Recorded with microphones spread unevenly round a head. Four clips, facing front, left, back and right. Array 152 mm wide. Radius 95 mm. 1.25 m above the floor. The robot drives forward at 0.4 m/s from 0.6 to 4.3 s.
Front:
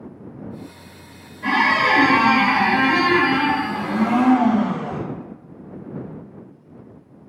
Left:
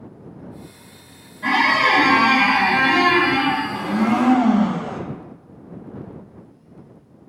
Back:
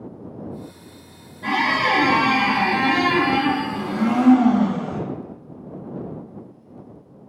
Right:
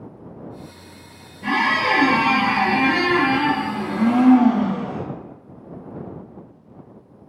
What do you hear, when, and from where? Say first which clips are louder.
1.4 s a squeak: left 2 dB, front 2 dB; 60° left, 1.2 m; by 4.5 s 135° left, 1.4 m
3.7 s a blender: even, front 2 dB; 60° left, 0.5 m; by 5.0 s 100° left, 0.5 m